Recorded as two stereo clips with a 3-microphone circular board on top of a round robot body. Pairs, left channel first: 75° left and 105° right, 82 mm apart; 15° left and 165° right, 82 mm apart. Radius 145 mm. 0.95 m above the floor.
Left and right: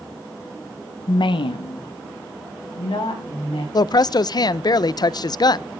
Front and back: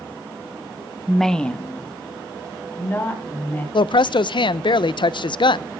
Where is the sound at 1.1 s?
110° left, 0.7 m; by 3.6 s 80° left, 4.5 m.